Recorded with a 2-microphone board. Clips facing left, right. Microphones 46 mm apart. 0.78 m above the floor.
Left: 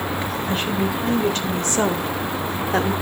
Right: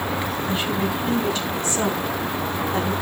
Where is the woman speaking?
45° left (ahead or behind), 3.5 m; by 2.9 s 75° left (ahead or behind), 1.9 m.